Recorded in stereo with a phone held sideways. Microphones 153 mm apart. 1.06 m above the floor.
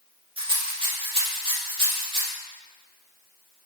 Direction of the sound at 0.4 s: 35° right (ahead or behind).